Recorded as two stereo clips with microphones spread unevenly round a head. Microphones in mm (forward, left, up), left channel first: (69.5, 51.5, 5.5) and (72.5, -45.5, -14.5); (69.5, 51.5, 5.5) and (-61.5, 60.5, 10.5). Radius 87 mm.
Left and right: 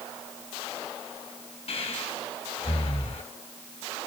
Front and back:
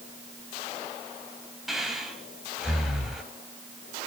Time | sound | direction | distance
1.7 | breathing | 90° left | 3.5 m